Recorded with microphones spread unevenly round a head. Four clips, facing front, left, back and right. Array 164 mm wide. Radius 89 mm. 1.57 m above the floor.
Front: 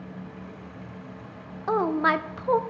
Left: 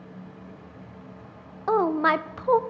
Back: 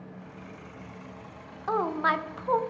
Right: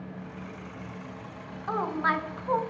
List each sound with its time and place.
1.7 s a woman speaking: 65° left, 0.6 m